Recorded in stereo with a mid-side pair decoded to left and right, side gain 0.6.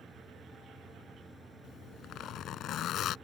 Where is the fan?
15° right.